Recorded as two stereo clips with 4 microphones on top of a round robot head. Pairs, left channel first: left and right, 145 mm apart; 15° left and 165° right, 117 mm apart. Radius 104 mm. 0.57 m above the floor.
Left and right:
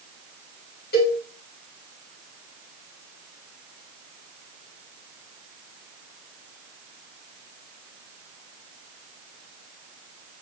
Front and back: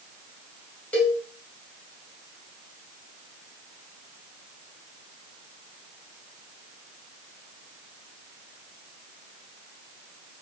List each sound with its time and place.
0.9 s a cowbell: 95° left, 2 m